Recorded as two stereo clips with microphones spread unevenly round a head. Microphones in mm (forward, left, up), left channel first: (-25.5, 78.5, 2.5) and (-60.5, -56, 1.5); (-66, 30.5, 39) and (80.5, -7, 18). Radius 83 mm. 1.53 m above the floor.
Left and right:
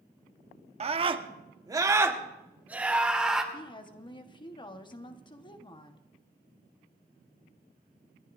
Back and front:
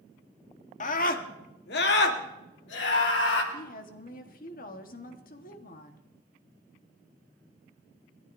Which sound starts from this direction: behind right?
A scream, at 0.8 s.